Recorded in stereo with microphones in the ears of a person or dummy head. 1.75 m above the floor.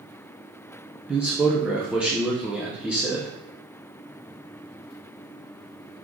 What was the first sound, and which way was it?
A man speaking, 10° right (ahead or behind).